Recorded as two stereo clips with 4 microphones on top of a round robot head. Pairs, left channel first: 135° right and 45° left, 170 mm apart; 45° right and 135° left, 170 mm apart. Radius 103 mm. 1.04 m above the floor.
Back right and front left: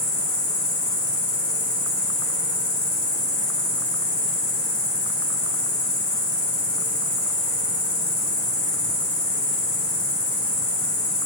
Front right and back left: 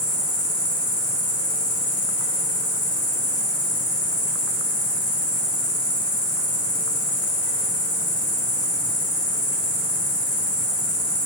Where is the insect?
40° right, 1.5 m.